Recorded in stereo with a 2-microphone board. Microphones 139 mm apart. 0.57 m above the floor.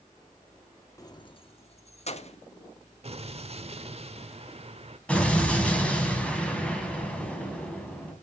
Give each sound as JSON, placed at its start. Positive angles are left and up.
{"t": 1.0, "sound": "keys jangling", "side_deg": 25, "distance_m": 0.7}
{"t": 3.0, "sound": "an explosion", "side_deg": -45, "distance_m": 1.0}
{"t": 5.1, "sound": "an explosion", "side_deg": 10, "distance_m": 3.0}